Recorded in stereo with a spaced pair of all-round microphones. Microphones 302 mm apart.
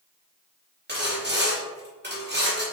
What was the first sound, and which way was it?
Sawing, 35° right (ahead or behind).